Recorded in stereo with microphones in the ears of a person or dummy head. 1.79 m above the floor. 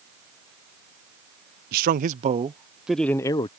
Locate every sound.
1.7 s a man speaking: 50° right (ahead or behind); by 3.5 s 30° left (ahead or behind)